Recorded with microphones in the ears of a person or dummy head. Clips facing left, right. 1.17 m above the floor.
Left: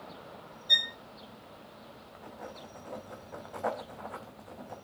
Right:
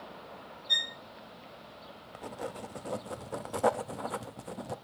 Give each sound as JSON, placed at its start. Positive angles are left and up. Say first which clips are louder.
{"t": 0.7, "sound": "a violin", "louder": "left 5 dB", "side_deg": 35, "distance_m": 1.2}
{"t": 2.1, "sound": "writing", "louder": "right 7 dB", "side_deg": -45, "distance_m": 0.6}